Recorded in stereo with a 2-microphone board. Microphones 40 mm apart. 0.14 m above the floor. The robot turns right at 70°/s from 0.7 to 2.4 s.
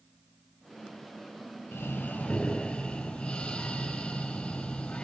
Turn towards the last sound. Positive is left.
turn(degrees=160)